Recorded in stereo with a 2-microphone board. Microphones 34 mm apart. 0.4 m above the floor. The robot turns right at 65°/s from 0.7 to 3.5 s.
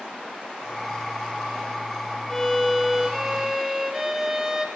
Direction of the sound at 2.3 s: 15° left (ahead or behind).